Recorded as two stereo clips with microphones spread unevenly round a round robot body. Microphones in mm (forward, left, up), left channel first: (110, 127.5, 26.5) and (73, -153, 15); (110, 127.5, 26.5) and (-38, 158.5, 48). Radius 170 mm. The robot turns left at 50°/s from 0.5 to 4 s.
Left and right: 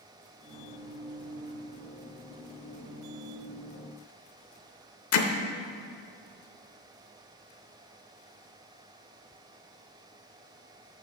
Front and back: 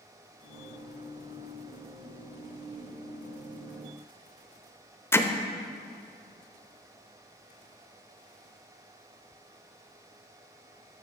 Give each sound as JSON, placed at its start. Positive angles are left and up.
{"t": 5.1, "sound": "hammering", "azimuth_deg": 55, "distance_m": 0.8}